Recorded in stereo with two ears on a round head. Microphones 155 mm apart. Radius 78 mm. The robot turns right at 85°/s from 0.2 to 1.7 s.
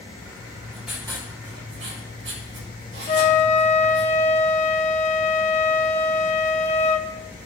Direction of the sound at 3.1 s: 40° left (ahead or behind).